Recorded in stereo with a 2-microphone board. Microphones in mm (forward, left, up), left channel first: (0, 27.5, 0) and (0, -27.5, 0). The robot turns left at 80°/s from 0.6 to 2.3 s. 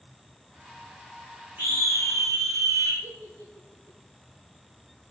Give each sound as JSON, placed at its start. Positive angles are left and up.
{"t": 1.6, "sound": "a scream", "azimuth_deg": -35, "distance_m": 8.5}
{"t": 3.0, "sound": "a giggle", "side_deg": -65, "distance_m": 6.5}